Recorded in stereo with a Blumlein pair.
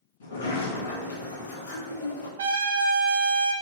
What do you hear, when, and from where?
0.2 s a sliding door: 65° left, 1.7 m
2.4 s a trumpet: 60° right, 1.0 m